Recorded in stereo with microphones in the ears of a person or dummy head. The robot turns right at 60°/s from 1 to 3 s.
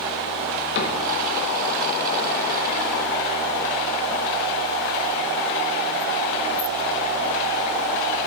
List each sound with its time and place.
0.8 s a cupboard door: 60° left (ahead or behind), 1.5 m